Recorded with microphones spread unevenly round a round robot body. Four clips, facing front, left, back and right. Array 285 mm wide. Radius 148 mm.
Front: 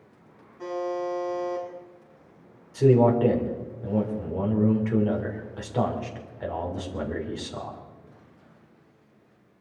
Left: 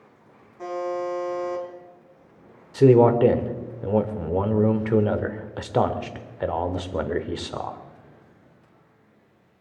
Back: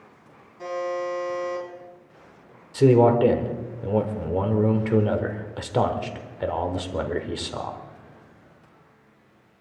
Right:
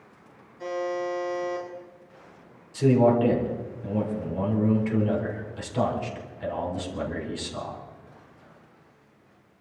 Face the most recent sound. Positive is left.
turn(degrees=125)